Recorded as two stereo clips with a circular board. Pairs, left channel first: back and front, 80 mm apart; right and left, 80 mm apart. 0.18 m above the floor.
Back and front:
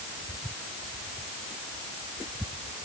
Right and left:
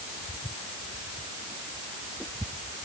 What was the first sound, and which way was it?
Only background noise.